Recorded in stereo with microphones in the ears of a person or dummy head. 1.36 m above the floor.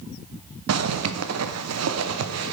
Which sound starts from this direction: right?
A zipper, at 0.7 s.